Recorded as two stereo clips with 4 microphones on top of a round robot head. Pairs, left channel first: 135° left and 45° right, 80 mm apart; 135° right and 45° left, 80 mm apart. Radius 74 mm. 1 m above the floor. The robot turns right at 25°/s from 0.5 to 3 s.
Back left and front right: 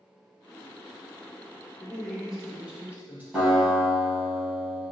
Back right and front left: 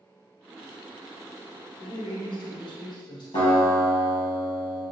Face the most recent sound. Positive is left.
turn(degrees=-130)